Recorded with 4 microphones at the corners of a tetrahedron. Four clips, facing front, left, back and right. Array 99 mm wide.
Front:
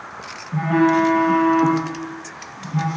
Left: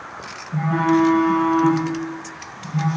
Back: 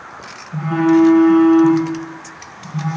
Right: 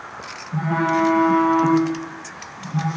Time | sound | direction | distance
0.5 | a phone buzzing | 10° left | 4.5 m